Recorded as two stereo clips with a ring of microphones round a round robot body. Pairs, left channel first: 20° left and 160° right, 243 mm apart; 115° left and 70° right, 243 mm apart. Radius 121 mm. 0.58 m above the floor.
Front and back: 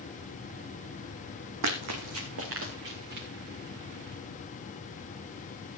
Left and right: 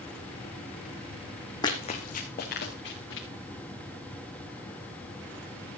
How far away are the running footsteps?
About 2.0 m.